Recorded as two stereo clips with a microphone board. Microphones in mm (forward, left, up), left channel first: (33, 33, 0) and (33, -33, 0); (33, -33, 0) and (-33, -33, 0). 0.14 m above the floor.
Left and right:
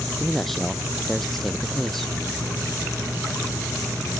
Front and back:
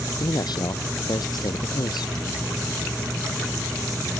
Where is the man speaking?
5° left.